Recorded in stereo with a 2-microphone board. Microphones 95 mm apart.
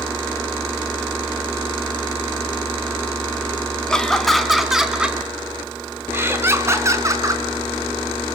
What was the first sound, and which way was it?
Laughter, 5° left (ahead or behind).